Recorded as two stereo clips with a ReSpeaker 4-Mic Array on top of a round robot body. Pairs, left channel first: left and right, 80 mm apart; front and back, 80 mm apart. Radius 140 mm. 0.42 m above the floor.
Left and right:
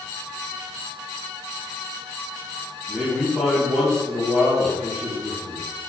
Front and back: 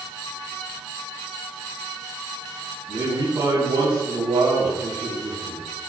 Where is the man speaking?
175° left, 4.5 m.